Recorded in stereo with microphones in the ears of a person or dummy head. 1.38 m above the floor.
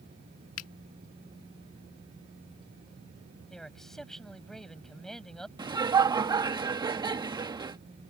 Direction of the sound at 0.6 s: 75° left (ahead or behind).